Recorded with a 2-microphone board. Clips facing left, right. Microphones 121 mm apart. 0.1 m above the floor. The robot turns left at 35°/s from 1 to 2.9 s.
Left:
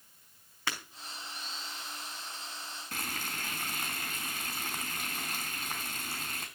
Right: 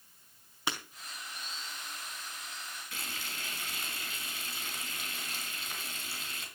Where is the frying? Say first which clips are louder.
Left 6 dB; 45° left (ahead or behind), 4 m.